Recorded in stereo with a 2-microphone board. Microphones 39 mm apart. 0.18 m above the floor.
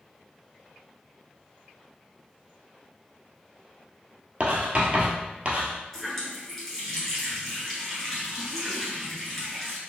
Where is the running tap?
Centre (ahead or behind), 1.7 m.